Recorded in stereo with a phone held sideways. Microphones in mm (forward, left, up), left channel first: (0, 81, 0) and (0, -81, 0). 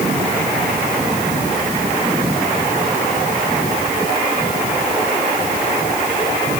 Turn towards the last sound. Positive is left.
No sound to turn to.